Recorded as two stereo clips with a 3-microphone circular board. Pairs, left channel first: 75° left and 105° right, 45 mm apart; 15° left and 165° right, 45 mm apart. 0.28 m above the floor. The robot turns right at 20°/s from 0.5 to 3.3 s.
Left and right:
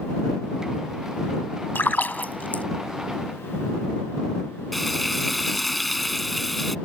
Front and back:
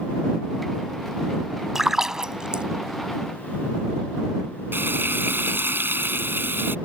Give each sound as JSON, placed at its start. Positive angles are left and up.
{"t": 1.8, "sound": "a splash", "azimuth_deg": 110}
{"t": 4.7, "sound": "frying", "azimuth_deg": 165}